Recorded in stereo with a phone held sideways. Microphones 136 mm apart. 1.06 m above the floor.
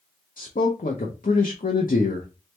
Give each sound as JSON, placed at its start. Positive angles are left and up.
{"t": 0.4, "sound": "a man speaking", "side_deg": 80, "distance_m": 0.6}